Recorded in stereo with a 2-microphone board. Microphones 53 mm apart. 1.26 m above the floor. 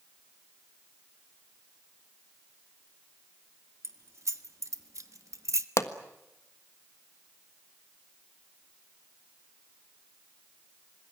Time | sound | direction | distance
3.8 | keys jangling | 65° right (ahead or behind) | 1.9 m
5.8 | a pop | 60° left (ahead or behind) | 1.4 m